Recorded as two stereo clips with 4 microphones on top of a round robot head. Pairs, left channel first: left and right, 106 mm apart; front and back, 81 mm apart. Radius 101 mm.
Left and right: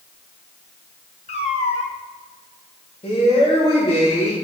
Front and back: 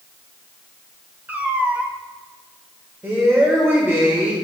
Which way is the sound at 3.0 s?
120° left.